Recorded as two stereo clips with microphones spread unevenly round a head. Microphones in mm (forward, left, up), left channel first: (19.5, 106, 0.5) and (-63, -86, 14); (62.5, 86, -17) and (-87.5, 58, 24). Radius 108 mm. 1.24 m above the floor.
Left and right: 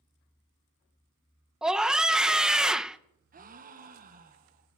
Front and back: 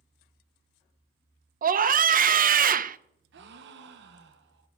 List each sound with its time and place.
1.6 s a scream: 160° left, 0.7 m
3.3 s a gasp: 165° right, 1.0 m